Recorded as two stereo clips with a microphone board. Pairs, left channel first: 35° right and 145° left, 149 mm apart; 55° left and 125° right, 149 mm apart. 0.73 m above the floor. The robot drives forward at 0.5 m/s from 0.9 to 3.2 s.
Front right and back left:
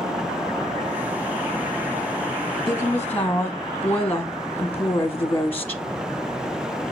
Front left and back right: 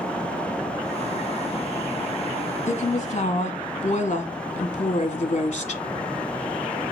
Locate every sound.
2.7 s a woman speaking: 30° left, 1.0 m; by 5.8 s 40° left, 0.8 m